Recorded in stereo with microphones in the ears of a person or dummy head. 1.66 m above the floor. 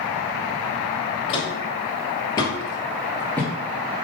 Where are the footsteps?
30° left (ahead or behind), 2.5 m; by 4.0 s 5° right (ahead or behind), 1.6 m.